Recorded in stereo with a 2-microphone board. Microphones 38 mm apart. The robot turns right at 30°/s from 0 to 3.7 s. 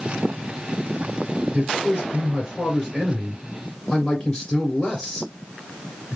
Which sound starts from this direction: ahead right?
A man speaking, at 1.5 s.